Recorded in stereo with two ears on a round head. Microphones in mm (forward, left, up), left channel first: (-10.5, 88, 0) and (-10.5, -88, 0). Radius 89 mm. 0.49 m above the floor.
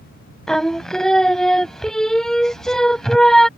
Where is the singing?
5° left (ahead or behind).